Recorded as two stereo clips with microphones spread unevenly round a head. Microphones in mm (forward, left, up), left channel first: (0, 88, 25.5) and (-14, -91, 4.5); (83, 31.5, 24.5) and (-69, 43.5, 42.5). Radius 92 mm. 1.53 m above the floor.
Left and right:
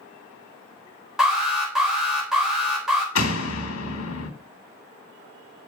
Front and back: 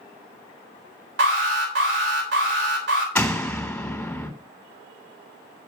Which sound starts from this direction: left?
A door slam, at 3.1 s.